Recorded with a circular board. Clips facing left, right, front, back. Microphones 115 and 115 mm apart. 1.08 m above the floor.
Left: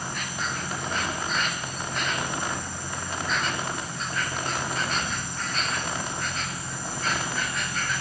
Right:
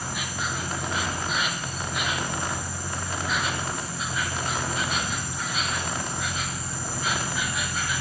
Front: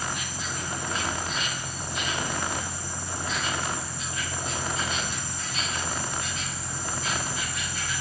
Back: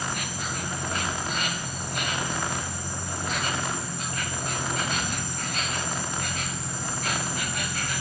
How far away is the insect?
About 1.3 m.